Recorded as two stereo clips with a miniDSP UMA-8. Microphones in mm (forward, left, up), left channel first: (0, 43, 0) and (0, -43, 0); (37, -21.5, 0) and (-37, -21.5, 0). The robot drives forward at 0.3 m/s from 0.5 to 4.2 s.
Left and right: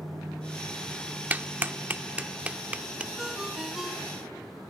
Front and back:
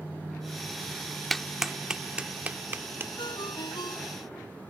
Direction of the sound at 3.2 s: 5° right.